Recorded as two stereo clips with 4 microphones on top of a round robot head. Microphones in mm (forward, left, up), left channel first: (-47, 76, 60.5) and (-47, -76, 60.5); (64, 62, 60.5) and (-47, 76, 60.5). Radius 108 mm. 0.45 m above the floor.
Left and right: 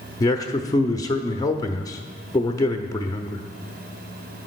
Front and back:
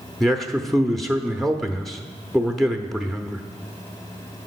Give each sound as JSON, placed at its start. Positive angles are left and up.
{"t": 0.2, "sound": "a man speaking", "azimuth_deg": 80, "distance_m": 0.7}